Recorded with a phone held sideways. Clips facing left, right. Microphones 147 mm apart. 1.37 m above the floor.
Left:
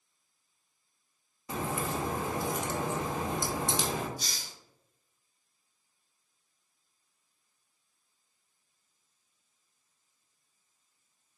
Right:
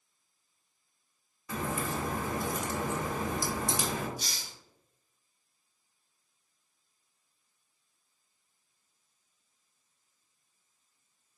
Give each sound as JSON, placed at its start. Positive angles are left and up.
{"t": 1.5, "sound": "a crack", "side_deg": 25, "distance_m": 0.8}
{"t": 4.2, "sound": "a hiss", "side_deg": -60, "distance_m": 1.6}